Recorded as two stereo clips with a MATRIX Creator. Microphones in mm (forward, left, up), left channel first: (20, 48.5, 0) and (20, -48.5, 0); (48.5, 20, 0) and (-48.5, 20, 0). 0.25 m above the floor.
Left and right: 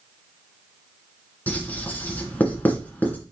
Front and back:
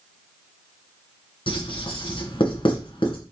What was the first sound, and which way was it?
Writing, 20° left.